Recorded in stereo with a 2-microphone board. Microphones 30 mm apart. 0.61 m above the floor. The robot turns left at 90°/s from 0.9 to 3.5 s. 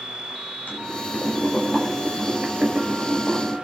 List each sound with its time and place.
0.7 s boiling: 90° left, 5 m; by 3.5 s 145° right, 5 m